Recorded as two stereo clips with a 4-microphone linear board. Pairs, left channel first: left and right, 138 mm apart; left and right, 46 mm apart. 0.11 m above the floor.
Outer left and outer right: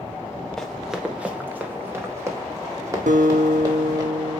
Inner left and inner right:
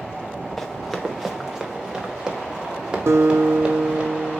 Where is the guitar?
70° right (ahead or behind), 1.6 m.